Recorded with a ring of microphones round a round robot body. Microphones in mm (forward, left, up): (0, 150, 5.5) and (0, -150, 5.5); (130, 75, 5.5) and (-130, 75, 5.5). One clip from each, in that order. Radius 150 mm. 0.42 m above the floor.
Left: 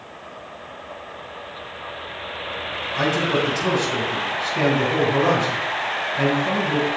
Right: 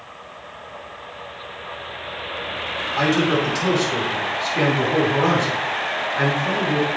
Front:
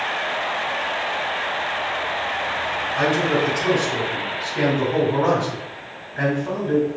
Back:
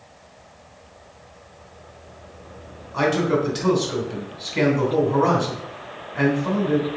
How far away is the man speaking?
About 3 m.